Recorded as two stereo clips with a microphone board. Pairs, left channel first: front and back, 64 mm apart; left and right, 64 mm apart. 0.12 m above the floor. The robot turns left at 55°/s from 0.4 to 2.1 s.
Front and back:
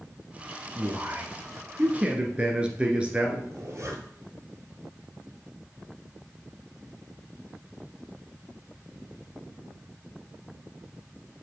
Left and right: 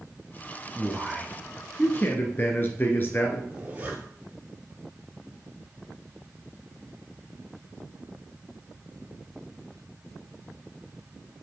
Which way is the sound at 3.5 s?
150° right.